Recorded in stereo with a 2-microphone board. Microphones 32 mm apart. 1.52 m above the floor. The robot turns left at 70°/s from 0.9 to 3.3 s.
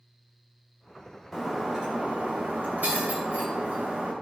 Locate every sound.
1.3 s breaking glass: 10° left, 2.5 m; by 4.1 s 130° right, 2.5 m